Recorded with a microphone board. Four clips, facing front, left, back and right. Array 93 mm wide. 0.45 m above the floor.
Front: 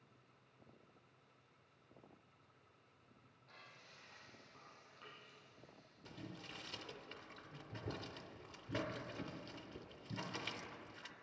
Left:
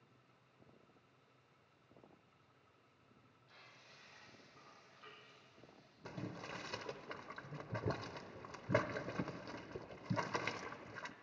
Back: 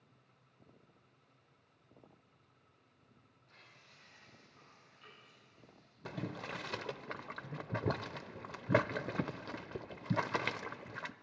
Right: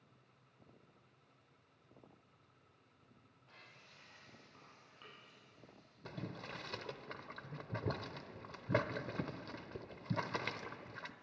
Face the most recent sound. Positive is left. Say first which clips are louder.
# even, back 11 dB
turn(degrees=170)